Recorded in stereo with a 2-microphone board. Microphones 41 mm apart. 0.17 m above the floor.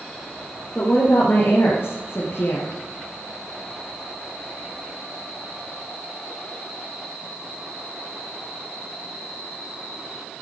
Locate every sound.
0.8 s a woman speaking: 45° left (ahead or behind), 3.5 m; by 2.7 s 65° left (ahead or behind), 3 m